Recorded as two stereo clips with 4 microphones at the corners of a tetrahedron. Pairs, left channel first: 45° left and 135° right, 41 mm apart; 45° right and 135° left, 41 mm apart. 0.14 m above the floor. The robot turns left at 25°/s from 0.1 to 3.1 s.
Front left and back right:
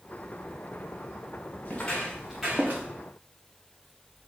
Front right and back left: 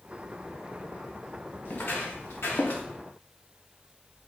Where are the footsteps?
5° right, 1.9 m; by 2.8 s 90° right, 1.2 m.